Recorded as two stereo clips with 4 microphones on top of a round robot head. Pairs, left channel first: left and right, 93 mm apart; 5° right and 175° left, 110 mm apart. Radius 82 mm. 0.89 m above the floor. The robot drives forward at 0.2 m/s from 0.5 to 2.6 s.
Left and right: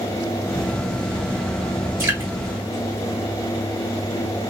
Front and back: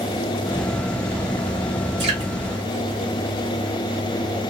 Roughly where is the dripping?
Behind right.